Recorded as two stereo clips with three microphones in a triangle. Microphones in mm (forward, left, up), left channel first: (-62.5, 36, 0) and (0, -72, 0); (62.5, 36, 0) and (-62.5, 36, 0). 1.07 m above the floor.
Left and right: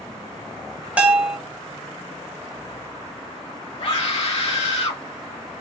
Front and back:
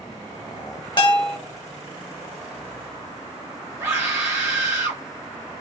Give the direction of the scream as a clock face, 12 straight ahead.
8 o'clock.